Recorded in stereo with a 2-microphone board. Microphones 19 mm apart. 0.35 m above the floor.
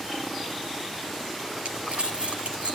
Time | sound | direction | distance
1.6 | crumpling | 80° right | 6.5 m